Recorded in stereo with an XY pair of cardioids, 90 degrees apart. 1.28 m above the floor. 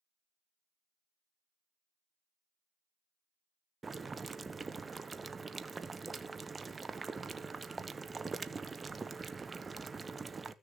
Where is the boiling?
30° right, 0.9 m.